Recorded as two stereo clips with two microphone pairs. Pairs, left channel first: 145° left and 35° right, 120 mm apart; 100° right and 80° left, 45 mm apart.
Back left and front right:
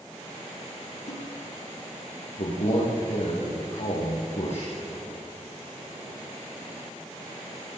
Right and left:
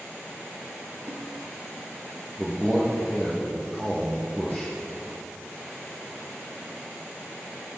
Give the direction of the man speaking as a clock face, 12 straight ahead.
6 o'clock.